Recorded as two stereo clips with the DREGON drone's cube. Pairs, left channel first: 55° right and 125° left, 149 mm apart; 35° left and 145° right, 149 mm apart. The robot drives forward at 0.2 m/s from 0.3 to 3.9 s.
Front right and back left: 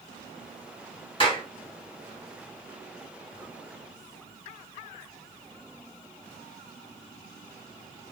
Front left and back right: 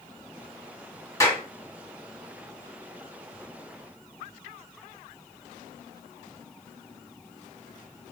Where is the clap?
25° right, 1.1 m.